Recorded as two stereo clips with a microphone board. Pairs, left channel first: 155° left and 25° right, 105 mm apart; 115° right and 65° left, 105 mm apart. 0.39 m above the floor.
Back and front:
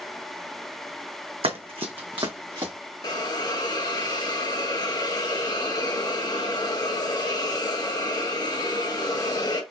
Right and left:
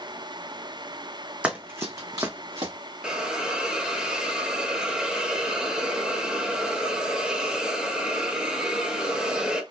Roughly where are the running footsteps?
Ahead.